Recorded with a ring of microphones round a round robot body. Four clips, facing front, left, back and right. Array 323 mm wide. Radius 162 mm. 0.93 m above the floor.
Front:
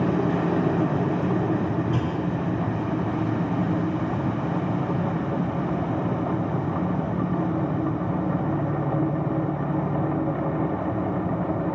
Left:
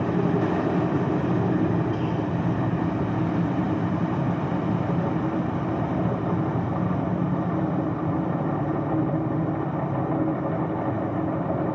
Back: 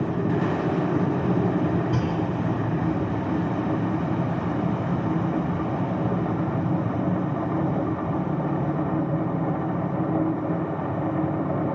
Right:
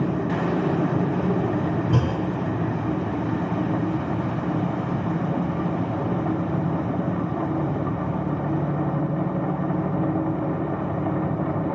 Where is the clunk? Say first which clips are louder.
Right 2 dB, back 1 dB; 100° right, 4.5 m.